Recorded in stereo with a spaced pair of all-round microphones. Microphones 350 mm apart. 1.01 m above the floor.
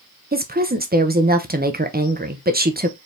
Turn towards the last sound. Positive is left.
turn(degrees=-25)  # may be behind; listen again after turning